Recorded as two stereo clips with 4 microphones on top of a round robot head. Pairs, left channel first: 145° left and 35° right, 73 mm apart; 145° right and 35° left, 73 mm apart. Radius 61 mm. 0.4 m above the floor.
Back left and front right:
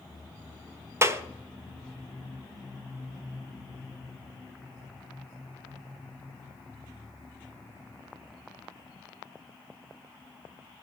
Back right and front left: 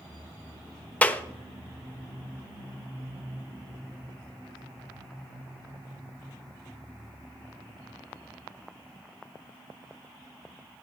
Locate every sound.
1.0 s a clap: 75° right, 1.2 m